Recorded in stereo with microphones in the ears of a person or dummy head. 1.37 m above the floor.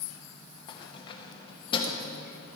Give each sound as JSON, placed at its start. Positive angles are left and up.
{"t": 0.7, "sound": "keys jangling", "side_deg": 30, "distance_m": 1.0}